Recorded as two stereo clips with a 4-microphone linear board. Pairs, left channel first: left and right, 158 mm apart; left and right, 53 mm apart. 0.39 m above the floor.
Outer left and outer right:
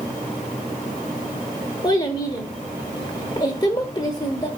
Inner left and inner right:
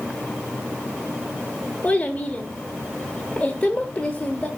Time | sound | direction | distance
1.8 | a child speaking | 25° left (ahead or behind) | 0.9 m